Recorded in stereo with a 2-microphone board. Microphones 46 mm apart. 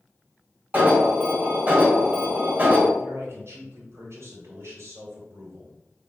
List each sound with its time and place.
0.7 s an alarm: 40° right (ahead or behind), 3 m
3.0 s a man speaking: 65° right (ahead or behind), 2.5 m